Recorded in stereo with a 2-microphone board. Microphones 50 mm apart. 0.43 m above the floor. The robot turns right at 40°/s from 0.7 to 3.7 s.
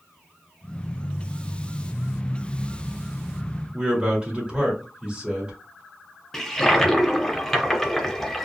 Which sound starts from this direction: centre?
A toilet flushing, at 6.3 s.